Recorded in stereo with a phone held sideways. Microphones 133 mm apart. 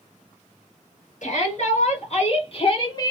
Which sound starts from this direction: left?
A shout, at 1.2 s.